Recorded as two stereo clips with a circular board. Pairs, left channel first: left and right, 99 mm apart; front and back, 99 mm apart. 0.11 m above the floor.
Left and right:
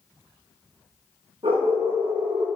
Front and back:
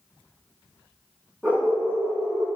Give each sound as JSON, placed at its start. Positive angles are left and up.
{"t": 1.4, "sound": "a dog barking", "azimuth_deg": -105, "distance_m": 2.5}